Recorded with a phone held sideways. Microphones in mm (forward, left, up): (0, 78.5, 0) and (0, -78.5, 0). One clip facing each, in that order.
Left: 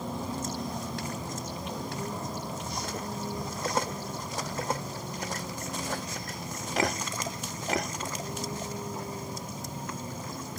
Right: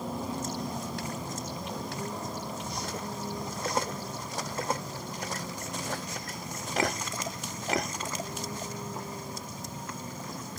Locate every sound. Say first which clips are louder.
0.0 s a vehicle: even; 5° right (ahead or behind); by 10.6 s 10° left (ahead or behind)